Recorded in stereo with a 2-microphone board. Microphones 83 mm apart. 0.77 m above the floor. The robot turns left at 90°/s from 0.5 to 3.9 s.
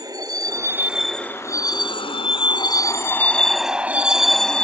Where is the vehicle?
45° right (ahead or behind); by 4.6 s 10° left (ahead or behind).